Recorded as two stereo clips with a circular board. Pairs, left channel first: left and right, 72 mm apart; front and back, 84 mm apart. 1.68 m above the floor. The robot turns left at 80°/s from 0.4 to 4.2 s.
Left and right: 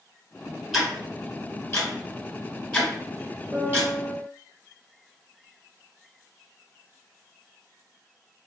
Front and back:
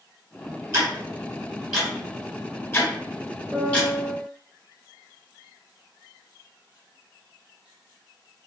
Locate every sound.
0.7 s ticking: straight behind, 1.3 m; by 3.9 s 75° right, 1.3 m
3.5 s a piano: 110° right, 1.3 m; by 4.1 s 160° right, 1.3 m